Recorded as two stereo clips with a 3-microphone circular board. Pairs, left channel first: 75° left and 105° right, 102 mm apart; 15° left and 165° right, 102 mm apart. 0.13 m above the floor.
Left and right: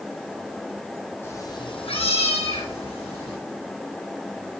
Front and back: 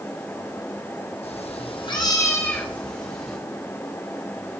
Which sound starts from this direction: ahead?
A cat meowing, at 1.2 s.